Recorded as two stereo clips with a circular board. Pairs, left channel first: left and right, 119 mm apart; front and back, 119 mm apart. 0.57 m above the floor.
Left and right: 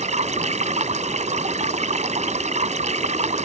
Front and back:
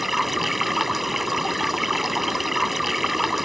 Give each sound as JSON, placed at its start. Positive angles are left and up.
{"t": 0.0, "sound": "running water", "azimuth_deg": -90}